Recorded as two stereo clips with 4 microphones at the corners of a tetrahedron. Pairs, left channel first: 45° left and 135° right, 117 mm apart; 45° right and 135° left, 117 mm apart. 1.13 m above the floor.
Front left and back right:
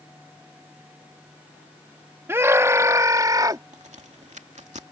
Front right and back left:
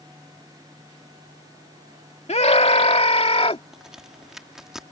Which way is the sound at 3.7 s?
140° right.